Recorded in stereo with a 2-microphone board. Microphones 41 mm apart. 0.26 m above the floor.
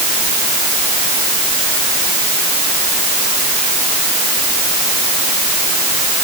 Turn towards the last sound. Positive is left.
No sound to turn to.